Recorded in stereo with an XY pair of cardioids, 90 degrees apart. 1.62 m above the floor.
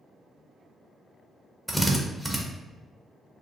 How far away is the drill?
About 1.0 m.